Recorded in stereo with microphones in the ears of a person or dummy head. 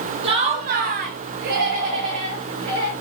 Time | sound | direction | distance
0.2 | laughter | 30° right (ahead or behind) | 0.7 m